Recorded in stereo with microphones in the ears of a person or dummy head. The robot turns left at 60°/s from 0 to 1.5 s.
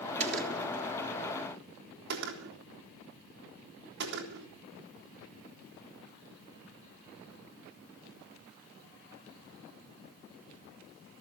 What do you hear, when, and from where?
0.2 s a gunshot: 40° right (ahead or behind), 3 m; by 4.5 s 65° right (ahead or behind), 3 m